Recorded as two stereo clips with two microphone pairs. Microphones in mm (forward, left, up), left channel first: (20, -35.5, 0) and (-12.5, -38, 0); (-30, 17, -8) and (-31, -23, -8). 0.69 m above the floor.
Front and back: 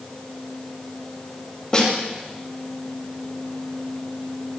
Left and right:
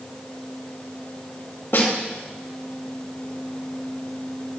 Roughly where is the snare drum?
Left.